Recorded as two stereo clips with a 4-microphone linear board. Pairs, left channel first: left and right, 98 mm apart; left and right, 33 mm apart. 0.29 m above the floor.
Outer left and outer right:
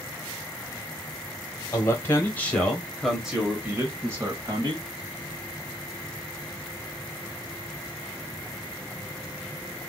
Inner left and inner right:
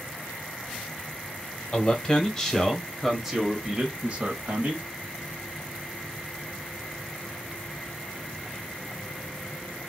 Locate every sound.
1.7 s a man speaking: 30° left (ahead or behind), 1.4 m; by 4.8 s 40° right (ahead or behind), 1.5 m